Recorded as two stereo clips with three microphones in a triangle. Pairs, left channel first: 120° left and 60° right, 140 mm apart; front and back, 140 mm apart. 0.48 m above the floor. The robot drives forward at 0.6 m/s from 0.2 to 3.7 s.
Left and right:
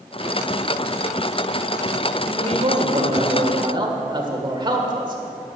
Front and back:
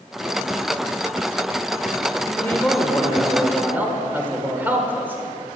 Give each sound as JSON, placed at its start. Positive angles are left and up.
{"t": 2.3, "sound": "a man speaking", "azimuth_deg": -65, "distance_m": 1.6}